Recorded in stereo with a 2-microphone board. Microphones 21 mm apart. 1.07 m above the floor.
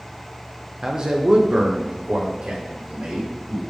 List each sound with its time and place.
0.8 s a man speaking: 25° right (ahead or behind), 0.5 m; by 3.6 s 80° right, 2 m